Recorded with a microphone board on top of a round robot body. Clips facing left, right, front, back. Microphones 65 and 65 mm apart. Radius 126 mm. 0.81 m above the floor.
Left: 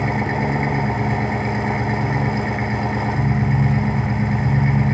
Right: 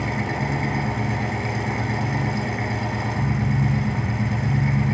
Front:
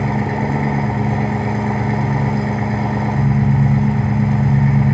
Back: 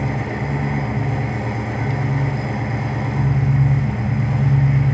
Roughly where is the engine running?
Ahead left.